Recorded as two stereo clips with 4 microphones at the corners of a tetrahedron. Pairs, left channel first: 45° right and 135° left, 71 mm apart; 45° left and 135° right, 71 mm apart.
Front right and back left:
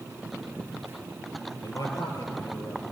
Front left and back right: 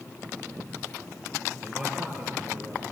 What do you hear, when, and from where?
1.6 s a man speaking: 50° right, 8.5 m